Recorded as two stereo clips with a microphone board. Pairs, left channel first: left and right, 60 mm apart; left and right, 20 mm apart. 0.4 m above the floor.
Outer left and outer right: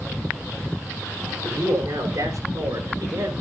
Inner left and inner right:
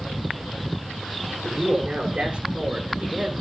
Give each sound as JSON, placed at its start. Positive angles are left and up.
{"t": 1.4, "sound": "a man speaking", "side_deg": -70, "distance_m": 8.0}